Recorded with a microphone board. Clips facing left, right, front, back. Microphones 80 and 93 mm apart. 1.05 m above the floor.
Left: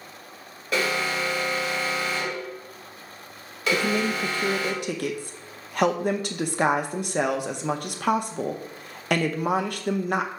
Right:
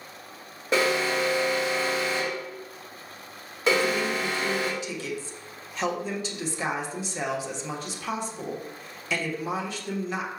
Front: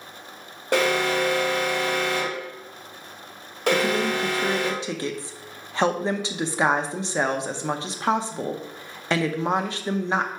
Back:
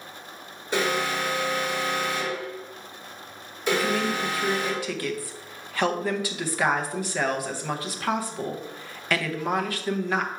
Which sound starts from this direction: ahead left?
A woman speaking, at 3.7 s.